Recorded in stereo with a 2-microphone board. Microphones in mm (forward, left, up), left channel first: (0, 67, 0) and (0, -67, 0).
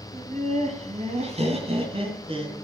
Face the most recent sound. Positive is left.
turn(degrees=-40)  # may be behind; listen again after turning